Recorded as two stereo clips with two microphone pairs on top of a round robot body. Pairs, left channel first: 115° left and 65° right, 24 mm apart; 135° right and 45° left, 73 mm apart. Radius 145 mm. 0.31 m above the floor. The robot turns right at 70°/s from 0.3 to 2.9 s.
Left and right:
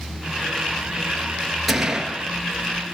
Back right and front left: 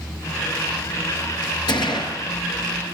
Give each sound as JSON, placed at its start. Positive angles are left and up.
{"t": 1.7, "sound": "a gunshot", "azimuth_deg": -155, "distance_m": 7.5}